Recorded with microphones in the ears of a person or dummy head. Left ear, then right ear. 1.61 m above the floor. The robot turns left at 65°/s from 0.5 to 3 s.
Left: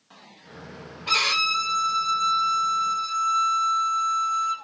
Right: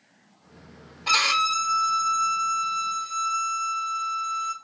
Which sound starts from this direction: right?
A violin, at 1.1 s.